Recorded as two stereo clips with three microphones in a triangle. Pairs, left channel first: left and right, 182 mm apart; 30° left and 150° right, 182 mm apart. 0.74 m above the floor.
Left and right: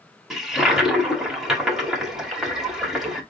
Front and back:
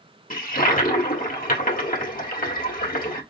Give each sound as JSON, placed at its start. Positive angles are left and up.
{"t": 0.3, "sound": "a toilet flushing", "azimuth_deg": 0, "distance_m": 1.6}